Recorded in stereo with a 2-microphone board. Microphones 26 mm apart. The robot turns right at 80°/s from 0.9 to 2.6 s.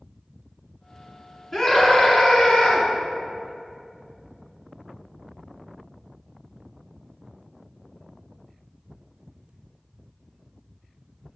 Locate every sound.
1.5 s a scream: 30° left, 1.5 m; by 2.9 s 115° left, 1.5 m